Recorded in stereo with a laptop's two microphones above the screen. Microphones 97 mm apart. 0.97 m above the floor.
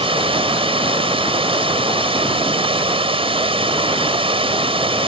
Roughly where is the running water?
Right.